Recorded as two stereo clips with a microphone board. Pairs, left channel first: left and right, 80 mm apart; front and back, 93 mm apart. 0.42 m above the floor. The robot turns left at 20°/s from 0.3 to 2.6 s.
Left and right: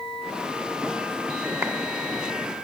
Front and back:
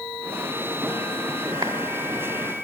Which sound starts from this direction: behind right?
A clap, at 1.6 s.